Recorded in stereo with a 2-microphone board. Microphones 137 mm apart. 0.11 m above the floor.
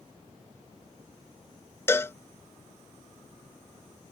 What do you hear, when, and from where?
1.9 s a cowbell: 20° left (ahead or behind)